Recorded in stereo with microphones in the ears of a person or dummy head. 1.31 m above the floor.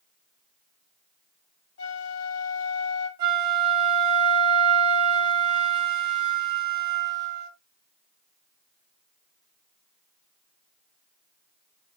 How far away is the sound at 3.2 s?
About 2.5 m.